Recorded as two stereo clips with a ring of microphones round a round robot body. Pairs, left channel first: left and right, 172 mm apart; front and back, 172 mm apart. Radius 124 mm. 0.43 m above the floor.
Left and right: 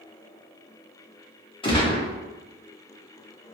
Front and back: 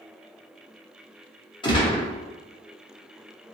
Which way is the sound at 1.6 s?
45° left.